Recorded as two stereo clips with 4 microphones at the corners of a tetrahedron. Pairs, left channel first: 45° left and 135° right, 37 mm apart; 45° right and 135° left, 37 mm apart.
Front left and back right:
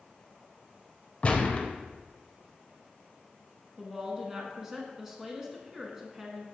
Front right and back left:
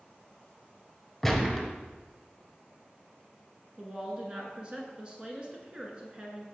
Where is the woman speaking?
165° left, 1.4 m.